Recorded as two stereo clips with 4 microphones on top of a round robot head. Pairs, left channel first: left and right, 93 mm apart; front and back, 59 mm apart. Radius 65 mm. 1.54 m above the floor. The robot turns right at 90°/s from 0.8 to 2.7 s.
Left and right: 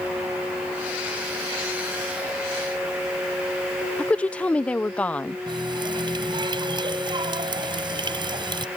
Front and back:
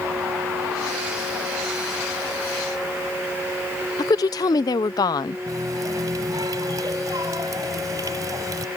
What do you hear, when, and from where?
4.0 s a woman speaking: 10° left
5.5 s a running tap: 130° right